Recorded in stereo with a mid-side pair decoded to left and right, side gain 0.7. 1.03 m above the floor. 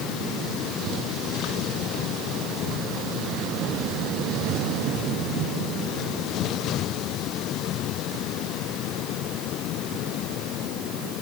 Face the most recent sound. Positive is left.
No sound to turn to.